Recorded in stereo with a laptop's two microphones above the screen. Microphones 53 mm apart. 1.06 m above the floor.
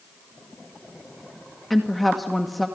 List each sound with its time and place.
1.7 s a woman speaking: centre (ahead or behind), 1.8 m